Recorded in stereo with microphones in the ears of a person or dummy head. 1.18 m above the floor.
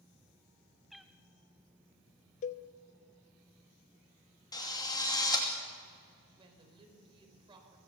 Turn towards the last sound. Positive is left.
turn(degrees=-30)  # may be behind; listen again after turning